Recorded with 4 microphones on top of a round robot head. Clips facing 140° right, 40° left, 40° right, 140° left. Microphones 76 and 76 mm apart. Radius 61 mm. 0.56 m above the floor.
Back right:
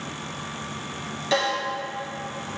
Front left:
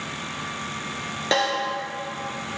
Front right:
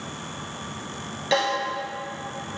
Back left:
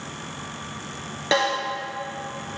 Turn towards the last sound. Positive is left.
turn(degrees=85)